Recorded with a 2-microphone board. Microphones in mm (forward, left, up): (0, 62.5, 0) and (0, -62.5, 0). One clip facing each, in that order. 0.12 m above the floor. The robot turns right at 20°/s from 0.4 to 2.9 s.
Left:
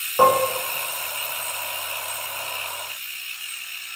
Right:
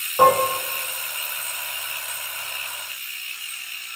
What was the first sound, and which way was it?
Dishes clattering, 10° left (ahead or behind).